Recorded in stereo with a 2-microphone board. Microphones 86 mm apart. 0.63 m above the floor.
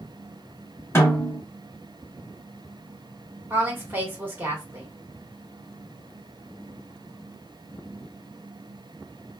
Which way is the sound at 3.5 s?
25° right (ahead or behind).